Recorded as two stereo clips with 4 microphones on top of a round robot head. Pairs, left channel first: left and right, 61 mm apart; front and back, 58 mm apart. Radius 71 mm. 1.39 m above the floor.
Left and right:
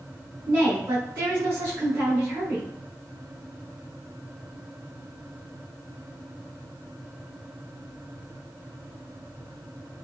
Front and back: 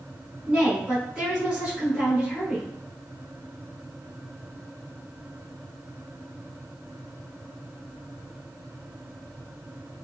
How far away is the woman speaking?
About 1.3 m.